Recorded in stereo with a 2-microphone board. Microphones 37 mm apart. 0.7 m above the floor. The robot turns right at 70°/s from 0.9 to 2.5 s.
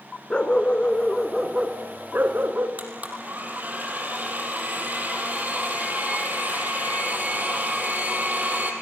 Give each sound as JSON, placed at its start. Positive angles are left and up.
{"t": 0.3, "sound": "a dog barking", "azimuth_deg": 150, "distance_m": 2.0}
{"t": 2.8, "sound": "a blender", "side_deg": -50, "distance_m": 4.5}